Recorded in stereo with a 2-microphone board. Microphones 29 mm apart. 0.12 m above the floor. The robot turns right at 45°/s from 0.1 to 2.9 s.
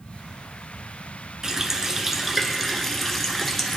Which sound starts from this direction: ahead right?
A running tap, at 1.4 s.